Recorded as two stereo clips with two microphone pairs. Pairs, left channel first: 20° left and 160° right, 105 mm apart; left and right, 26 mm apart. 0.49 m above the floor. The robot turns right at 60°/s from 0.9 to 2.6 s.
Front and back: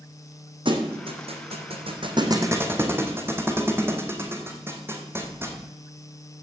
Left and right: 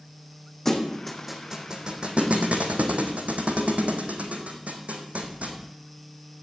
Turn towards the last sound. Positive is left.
turn(degrees=-90)